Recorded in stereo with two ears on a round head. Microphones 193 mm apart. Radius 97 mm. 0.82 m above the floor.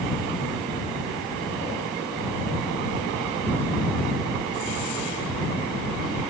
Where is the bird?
No bird in this recording.